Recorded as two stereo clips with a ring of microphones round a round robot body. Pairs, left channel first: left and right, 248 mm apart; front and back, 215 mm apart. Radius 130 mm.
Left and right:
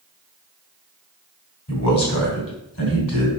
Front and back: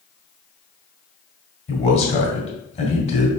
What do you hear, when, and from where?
1.7 s a man speaking: 60° left, 3 m